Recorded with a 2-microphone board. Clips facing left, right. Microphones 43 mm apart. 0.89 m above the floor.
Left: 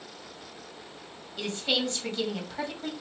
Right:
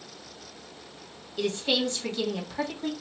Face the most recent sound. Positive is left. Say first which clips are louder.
# right 2 dB
turn(degrees=0)  # may be behind; listen again after turning